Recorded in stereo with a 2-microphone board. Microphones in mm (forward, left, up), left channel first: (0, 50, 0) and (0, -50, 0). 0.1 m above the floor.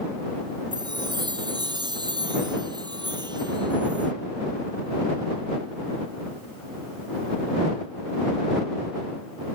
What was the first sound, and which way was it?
A chime, 45° right (ahead or behind).